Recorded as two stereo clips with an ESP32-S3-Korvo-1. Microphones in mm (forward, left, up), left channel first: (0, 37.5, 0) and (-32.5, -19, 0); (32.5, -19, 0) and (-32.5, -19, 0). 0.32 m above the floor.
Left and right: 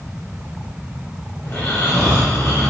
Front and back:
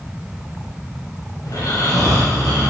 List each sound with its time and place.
1.4 s snoring: 15° left, 2.5 m